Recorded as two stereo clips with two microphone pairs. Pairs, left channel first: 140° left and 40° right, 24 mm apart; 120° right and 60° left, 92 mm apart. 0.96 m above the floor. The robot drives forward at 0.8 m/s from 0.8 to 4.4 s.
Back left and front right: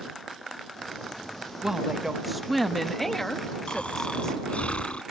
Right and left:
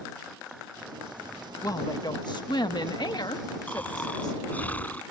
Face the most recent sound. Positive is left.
turn(degrees=165)